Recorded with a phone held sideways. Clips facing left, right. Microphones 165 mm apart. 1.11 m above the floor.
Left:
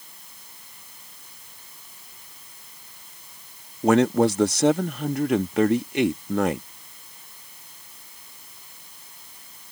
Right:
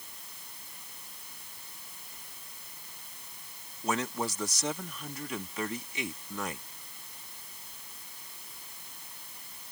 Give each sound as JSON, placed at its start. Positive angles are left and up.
{"t": 3.8, "sound": "a man speaking", "side_deg": 60}